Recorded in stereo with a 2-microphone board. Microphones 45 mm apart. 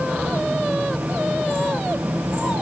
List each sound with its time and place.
Only background noise.